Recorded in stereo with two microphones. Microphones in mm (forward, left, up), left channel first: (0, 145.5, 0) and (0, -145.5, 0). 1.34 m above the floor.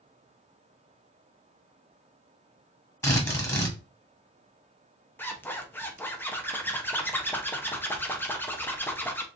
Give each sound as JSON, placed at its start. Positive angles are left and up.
{"t": 3.0, "sound": "a drill", "side_deg": 10, "distance_m": 1.2}
{"t": 5.2, "sound": "a zipper", "side_deg": 5, "distance_m": 0.5}